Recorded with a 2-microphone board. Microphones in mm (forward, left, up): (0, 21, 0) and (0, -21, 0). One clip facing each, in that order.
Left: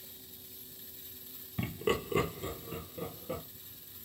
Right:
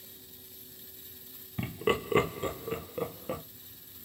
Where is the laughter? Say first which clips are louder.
Right 3 dB; 5° right (ahead or behind), 0.7 m; by 3.4 s 80° right, 1.2 m.